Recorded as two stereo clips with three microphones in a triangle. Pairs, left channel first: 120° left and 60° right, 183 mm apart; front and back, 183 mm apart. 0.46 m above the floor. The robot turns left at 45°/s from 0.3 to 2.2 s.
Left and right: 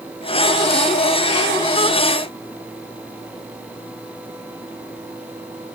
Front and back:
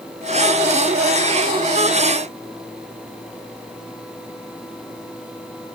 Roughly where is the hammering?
No hammering in this recording.